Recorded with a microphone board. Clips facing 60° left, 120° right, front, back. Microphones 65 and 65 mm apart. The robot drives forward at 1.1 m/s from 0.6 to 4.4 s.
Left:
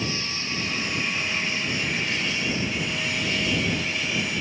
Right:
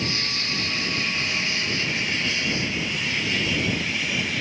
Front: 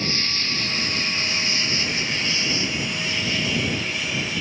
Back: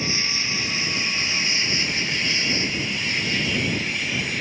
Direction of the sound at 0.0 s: 105° right.